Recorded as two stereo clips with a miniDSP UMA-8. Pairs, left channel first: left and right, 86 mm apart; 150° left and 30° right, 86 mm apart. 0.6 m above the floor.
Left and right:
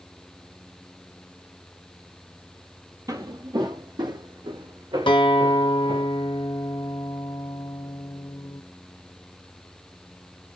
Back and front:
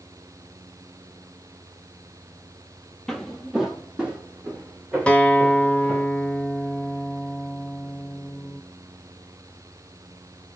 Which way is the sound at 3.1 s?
125° right.